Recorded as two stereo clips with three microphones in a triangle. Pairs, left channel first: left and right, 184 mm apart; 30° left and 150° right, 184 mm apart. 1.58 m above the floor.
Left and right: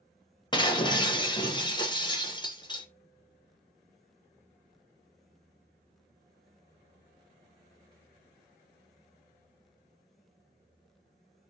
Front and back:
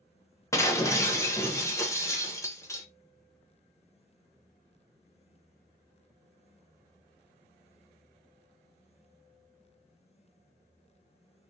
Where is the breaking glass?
80° left, 0.6 m.